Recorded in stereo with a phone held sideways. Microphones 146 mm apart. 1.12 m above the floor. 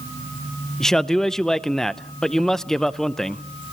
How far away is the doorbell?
No doorbell in this recording.